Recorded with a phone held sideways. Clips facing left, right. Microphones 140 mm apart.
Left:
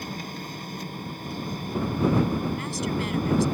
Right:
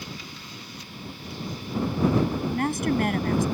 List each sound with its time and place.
0.0 s a machine running: 50° left (ahead or behind)
2.5 s a woman speaking: 55° right (ahead or behind)